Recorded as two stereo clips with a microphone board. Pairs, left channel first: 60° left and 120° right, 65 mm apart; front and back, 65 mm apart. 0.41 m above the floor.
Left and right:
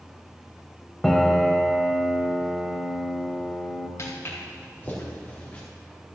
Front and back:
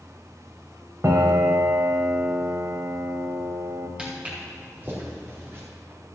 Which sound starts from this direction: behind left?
A piano, at 1.0 s.